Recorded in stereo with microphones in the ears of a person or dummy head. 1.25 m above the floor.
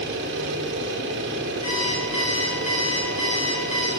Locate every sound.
0.0 s a machine running: 65° right (ahead or behind), 0.9 m
1.6 s an alarm clock: 30° left (ahead or behind), 1.2 m